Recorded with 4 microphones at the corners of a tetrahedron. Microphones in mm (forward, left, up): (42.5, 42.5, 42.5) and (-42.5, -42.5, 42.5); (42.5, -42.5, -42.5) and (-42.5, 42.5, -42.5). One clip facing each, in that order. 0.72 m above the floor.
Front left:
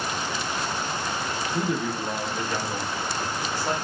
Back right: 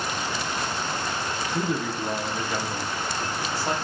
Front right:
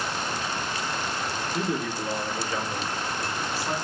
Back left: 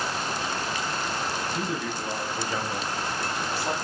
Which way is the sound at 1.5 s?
40° right.